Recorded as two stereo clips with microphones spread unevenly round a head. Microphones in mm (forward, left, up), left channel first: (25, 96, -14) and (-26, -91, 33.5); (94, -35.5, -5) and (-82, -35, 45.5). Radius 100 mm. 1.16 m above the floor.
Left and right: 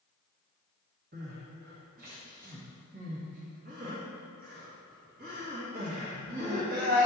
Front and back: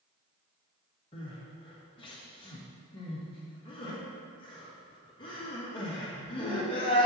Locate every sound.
1.1 s crying: 55° right, 1.8 m